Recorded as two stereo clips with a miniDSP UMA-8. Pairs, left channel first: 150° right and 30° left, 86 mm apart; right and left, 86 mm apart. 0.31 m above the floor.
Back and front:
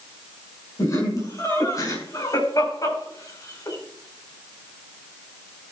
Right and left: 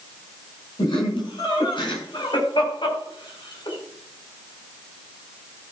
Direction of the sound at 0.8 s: 100° right.